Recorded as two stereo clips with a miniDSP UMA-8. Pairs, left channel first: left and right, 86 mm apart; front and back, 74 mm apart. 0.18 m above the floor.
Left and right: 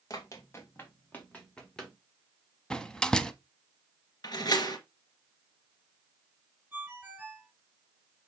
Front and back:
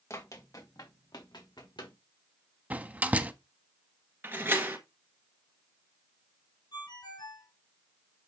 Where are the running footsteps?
45° left, 3 m; by 1.9 s 10° left, 4 m.